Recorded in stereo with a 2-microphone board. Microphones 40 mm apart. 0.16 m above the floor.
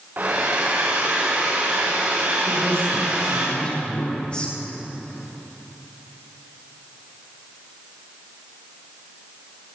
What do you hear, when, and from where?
0.2 s a hair dryer: 45° right (ahead or behind), 4.5 m
2.5 s a woman speaking: 20° left (ahead or behind), 6.5 m